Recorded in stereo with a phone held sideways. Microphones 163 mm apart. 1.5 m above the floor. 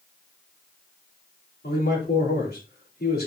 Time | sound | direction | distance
1.6 | a man speaking | 75° left (ahead or behind) | 3.5 m